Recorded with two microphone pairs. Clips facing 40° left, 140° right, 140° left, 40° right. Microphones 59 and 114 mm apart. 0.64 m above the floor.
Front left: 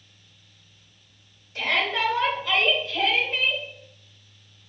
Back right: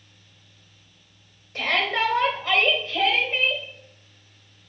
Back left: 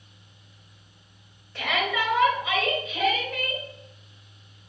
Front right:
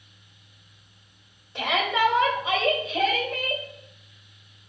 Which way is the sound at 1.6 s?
105° right.